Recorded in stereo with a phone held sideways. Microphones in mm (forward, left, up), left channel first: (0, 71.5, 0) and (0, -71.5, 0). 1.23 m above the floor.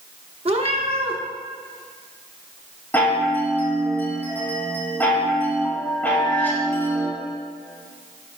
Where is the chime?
15° left (ahead or behind), 1.9 m.